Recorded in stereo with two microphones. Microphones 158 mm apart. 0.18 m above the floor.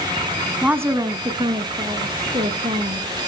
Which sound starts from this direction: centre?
A woman speaking, at 0.6 s.